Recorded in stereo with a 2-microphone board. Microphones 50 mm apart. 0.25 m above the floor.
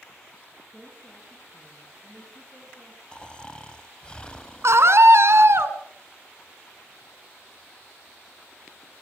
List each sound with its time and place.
0.7 s a woman speaking: 10° right (ahead or behind), 7.5 m; by 3.0 s 15° right (ahead or behind), 9 m
3.1 s snoring: 20° left (ahead or behind), 1.0 m
4.6 s a scream: 60° right (ahead or behind), 2 m